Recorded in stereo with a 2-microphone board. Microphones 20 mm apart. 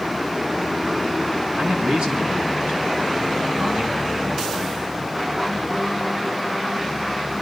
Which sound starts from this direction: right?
A man speaking, at 1.6 s.